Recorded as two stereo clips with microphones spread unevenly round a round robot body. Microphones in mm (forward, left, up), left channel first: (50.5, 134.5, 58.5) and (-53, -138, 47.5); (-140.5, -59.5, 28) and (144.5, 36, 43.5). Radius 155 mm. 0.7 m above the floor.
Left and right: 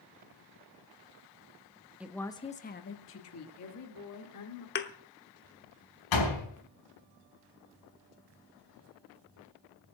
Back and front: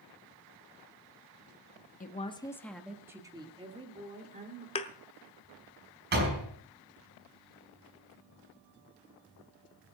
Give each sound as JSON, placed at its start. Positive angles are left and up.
{"t": 2.0, "sound": "a woman speaking", "azimuth_deg": 170, "distance_m": 1.2}
{"t": 4.8, "sound": "a thud", "azimuth_deg": 125, "distance_m": 0.9}
{"t": 6.1, "sound": "a door slam", "azimuth_deg": 75, "distance_m": 4.5}